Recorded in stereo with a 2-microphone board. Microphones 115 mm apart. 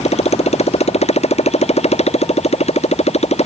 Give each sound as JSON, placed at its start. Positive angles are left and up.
{"t": 0.0, "sound": "a motorcycle", "side_deg": 80}